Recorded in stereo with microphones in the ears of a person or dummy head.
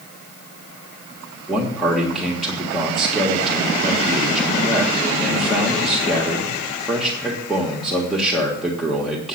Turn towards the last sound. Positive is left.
turn(degrees=5)  # may be behind; listen again after turning